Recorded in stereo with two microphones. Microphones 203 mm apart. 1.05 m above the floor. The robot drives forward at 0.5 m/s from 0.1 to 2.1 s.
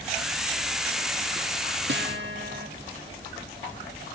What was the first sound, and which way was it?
A guitar, 70° right (ahead or behind).